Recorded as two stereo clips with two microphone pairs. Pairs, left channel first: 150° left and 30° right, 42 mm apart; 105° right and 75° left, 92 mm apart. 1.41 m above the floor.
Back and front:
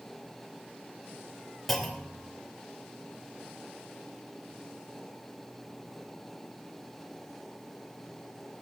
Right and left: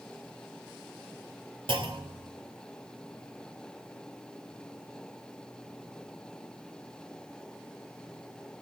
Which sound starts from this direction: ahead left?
A clunk, at 1.7 s.